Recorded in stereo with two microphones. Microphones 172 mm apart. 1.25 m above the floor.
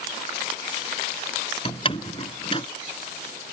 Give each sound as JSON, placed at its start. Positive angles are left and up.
{"t": 1.6, "sound": "a door slam", "side_deg": 30}